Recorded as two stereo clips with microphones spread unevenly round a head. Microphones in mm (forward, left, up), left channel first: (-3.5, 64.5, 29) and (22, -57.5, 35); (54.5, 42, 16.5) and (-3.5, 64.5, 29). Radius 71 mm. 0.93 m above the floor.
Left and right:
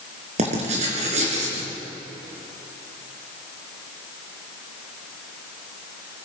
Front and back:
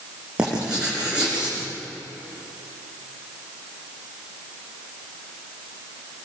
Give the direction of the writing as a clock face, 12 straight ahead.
4 o'clock.